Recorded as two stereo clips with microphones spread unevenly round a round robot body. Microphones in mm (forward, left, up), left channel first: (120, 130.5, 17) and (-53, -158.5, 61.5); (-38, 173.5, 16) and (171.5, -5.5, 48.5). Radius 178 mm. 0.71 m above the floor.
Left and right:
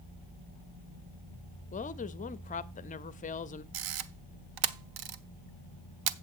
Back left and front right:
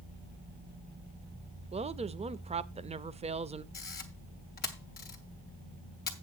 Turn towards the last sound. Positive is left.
turn(degrees=-155)